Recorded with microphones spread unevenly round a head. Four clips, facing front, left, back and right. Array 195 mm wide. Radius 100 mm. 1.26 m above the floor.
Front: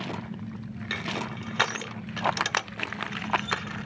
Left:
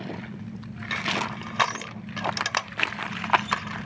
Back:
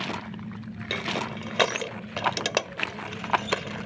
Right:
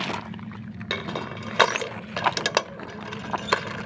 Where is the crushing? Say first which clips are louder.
Left 2 dB, back 3 dB; 145° right.